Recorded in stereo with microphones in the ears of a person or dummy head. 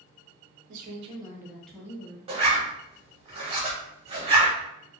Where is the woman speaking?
50° right (ahead or behind), 0.7 m; by 2.2 s 25° left (ahead or behind), 0.9 m.